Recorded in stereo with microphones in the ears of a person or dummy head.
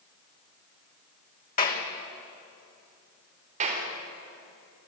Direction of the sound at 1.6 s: 40° left (ahead or behind).